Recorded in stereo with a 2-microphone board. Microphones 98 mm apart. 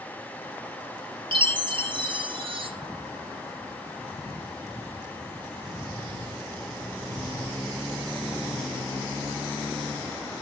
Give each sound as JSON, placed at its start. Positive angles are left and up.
{"t": 1.3, "sound": "a chime", "side_deg": -60, "distance_m": 0.9}